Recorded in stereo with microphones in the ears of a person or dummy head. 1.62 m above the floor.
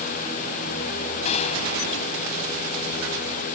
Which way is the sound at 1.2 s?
40° left (ahead or behind).